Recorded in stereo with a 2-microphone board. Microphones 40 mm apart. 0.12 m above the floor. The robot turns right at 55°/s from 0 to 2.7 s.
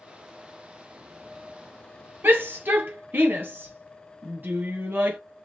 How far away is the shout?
About 2.5 m.